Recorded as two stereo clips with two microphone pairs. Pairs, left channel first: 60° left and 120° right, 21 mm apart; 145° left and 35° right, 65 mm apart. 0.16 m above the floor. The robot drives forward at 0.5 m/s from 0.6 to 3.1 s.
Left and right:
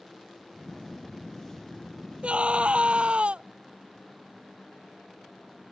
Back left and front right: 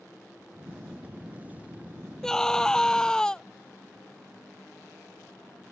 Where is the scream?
135° right; by 3.4 s 140° right.